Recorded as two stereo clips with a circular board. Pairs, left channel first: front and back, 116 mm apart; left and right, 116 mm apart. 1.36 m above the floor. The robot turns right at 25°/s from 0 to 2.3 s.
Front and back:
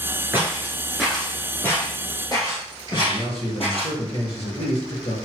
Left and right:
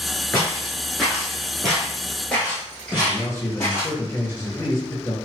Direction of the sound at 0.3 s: 135° left.